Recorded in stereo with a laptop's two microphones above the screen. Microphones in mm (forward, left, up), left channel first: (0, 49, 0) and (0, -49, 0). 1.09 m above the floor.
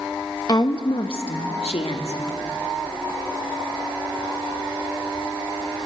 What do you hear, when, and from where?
0.5 s a woman speaking: 40° left (ahead or behind), 0.9 m; by 2.2 s 85° left, 2 m